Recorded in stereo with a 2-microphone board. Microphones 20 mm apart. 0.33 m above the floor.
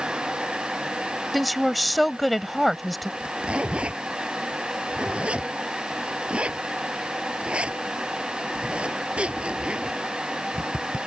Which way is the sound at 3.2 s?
70° right (ahead or behind).